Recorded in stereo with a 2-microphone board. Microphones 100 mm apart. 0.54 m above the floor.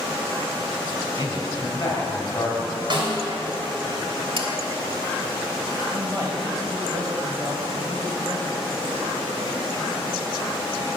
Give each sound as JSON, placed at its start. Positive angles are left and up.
{"t": 1.2, "sound": "a man speaking", "side_deg": 35, "distance_m": 3.0}
{"t": 2.9, "sound": "a snare drum", "side_deg": -50, "distance_m": 2.5}
{"t": 4.4, "sound": "dishes clattering", "side_deg": -60, "distance_m": 1.3}
{"t": 5.9, "sound": "a man speaking", "side_deg": -35, "distance_m": 2.5}